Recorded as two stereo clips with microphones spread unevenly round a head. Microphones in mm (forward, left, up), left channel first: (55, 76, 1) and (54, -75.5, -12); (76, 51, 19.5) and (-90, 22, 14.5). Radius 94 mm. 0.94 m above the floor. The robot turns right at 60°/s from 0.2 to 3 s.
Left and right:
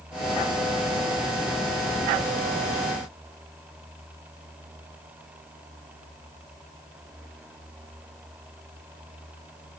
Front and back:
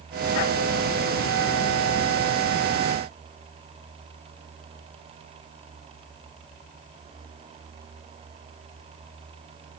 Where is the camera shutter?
I don't hear a camera shutter.